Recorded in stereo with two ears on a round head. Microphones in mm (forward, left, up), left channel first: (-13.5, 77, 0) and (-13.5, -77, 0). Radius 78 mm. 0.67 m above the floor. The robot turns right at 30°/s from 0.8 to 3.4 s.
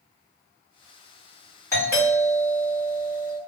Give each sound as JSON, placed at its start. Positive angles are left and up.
{"t": 1.7, "sound": "a doorbell", "azimuth_deg": 155, "distance_m": 1.6}